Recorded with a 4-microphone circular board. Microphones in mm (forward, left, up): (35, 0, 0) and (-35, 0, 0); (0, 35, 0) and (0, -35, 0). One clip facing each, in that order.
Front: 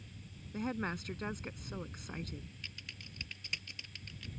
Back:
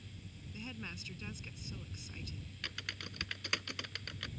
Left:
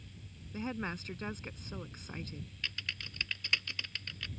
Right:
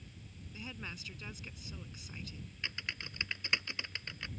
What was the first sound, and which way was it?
A woman speaking, 35° left.